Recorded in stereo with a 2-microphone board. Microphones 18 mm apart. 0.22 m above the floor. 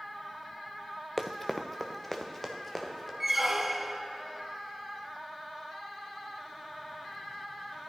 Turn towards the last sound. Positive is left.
turn(degrees=-15)  # may be behind; listen again after turning